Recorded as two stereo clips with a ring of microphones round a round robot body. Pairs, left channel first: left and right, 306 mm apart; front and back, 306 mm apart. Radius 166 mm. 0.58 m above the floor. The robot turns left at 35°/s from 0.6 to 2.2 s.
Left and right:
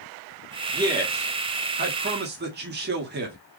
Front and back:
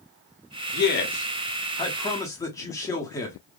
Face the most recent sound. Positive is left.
turn(degrees=-70)